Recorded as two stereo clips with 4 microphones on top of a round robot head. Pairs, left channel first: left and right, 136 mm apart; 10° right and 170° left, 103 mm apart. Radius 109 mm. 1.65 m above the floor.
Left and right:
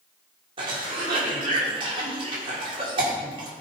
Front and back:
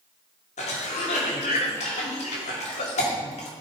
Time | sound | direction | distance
0.6 | a cough | 30° right | 1.7 m